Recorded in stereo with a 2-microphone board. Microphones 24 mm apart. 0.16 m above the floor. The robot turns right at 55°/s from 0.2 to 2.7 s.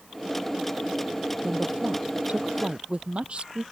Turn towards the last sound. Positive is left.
turn(degrees=-50)